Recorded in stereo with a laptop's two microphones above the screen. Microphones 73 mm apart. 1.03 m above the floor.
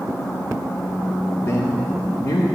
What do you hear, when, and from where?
1.4 s a man speaking: 35° left (ahead or behind), 0.6 m; by 2.5 s 60° left (ahead or behind), 1.0 m